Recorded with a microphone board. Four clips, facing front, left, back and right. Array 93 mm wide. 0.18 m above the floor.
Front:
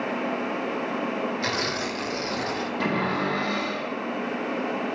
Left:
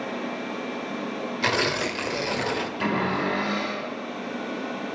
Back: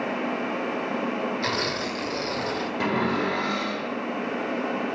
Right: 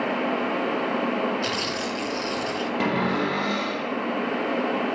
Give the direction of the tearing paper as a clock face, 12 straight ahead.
9 o'clock.